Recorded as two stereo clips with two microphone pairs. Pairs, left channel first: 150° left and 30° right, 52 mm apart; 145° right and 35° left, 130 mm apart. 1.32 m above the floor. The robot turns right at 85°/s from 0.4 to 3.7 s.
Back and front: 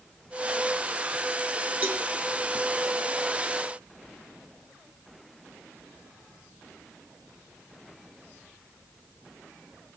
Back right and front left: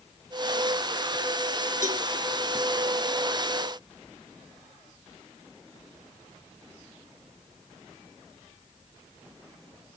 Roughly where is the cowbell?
Ahead left.